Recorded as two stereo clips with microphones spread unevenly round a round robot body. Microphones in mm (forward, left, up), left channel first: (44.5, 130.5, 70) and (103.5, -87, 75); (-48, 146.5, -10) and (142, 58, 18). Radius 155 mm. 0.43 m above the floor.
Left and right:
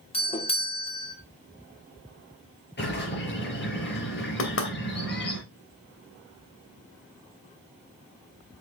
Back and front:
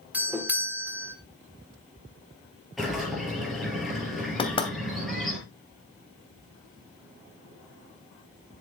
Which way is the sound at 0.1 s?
65° left.